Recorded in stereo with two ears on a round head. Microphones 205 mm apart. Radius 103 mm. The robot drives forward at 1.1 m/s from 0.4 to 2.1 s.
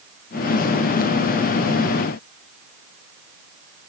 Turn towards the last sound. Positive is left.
No sound to turn to.